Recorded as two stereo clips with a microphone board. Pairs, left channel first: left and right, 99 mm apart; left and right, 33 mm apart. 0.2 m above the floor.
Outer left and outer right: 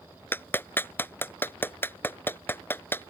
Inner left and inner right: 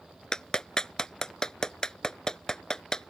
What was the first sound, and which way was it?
A clap, 20° left (ahead or behind).